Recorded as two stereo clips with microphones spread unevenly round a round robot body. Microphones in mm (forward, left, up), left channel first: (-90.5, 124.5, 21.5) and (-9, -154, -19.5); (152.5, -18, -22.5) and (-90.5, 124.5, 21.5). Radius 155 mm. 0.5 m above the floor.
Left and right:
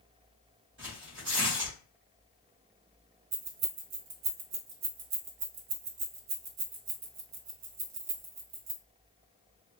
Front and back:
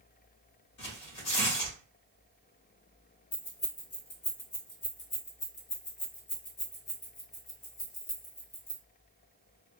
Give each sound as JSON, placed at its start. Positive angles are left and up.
{"t": 0.8, "sound": "tearing paper", "azimuth_deg": -30, "distance_m": 1.8}
{"t": 3.3, "sound": "keys jangling", "azimuth_deg": -90, "distance_m": 0.9}